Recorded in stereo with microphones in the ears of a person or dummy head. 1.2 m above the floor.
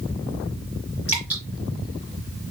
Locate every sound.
1.1 s dripping: 10° right (ahead or behind), 3.5 m